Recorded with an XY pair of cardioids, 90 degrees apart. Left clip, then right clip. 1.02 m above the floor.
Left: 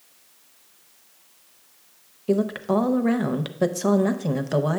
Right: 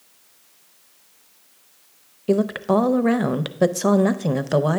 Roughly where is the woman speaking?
Ahead right.